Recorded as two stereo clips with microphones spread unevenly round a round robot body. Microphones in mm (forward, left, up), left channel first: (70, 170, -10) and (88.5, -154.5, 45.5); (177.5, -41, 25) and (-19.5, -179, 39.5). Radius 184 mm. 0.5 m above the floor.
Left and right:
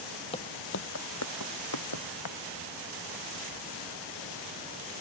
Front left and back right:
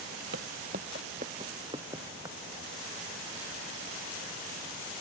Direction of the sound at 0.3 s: 175° left.